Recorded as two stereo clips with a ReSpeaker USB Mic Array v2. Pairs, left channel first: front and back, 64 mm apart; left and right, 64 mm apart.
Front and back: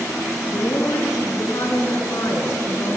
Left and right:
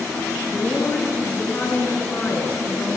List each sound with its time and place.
0.5 s a woman speaking: 25° left, 4.5 m